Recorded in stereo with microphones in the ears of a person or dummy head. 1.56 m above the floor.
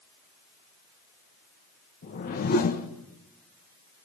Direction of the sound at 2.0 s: 50° left (ahead or behind).